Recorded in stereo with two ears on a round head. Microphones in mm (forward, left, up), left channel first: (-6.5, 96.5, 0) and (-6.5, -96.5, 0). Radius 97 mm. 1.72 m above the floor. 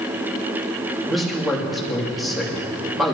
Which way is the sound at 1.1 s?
Centre (ahead or behind).